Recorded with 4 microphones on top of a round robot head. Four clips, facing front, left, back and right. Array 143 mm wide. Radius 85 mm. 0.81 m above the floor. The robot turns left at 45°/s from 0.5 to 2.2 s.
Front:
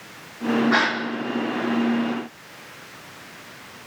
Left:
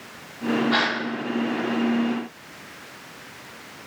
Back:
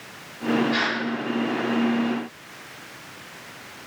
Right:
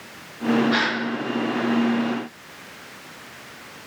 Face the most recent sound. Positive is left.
turn(degrees=-35)